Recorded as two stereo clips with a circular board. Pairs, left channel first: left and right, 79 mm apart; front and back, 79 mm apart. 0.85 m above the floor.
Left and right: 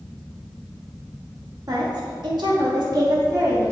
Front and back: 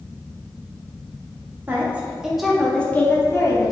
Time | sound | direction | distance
1.7 | a woman speaking | 115° right | 1.9 m